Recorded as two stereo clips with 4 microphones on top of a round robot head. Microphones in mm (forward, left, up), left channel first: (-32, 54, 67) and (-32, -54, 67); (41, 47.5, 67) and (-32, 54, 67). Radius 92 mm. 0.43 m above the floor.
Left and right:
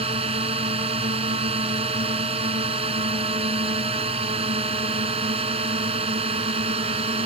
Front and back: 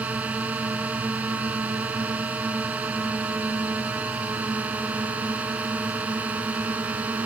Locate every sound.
0.0 s a drone: 115° right